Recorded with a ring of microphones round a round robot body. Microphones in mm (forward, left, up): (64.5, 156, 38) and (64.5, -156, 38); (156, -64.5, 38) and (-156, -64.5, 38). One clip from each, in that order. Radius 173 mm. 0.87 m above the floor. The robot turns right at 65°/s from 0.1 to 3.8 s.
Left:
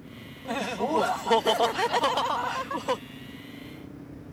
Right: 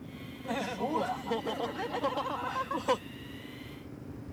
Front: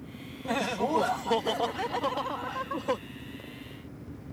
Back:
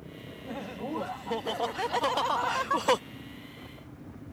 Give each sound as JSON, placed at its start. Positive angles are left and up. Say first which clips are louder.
{"t": 0.5, "sound": "laughter", "louder": "left 5 dB, front 9 dB", "azimuth_deg": 15}